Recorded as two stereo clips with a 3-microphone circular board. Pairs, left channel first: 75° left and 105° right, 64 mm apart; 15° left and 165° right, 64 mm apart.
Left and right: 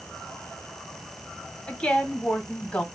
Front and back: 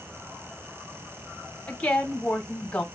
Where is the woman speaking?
45° left, 1.4 m.